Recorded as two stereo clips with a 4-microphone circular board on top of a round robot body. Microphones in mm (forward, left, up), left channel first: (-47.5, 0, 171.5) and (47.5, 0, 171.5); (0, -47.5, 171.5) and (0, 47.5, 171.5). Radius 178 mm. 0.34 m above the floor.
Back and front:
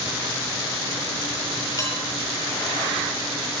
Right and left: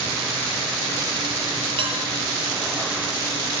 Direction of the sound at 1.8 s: 120° left.